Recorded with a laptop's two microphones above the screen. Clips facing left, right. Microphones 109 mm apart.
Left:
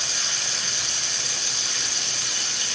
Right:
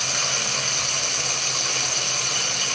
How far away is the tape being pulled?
I don't hear tape being pulled.